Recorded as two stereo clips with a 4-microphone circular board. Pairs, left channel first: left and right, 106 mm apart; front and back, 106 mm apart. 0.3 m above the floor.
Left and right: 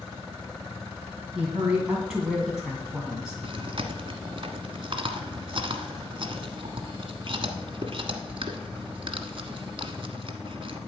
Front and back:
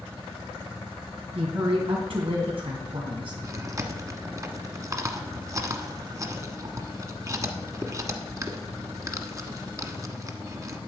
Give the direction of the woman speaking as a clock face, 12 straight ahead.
6 o'clock.